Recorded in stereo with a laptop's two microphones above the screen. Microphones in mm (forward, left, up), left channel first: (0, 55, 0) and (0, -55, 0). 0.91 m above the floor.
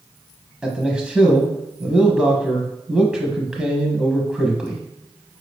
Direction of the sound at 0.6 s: 5° right (ahead or behind).